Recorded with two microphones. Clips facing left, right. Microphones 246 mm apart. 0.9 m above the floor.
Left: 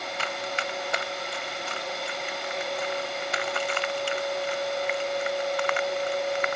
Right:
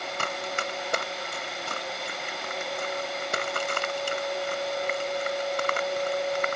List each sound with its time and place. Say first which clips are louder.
0.2 s running footsteps: even; 50° right (ahead or behind); by 6.6 s 45° right (ahead or behind)